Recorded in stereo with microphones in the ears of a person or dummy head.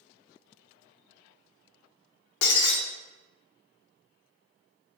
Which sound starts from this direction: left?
Breaking glass, at 2.4 s.